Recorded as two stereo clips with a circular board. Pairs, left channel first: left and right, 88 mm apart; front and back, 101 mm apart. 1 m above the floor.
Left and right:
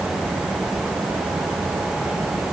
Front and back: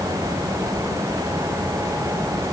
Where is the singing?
I don't hear singing.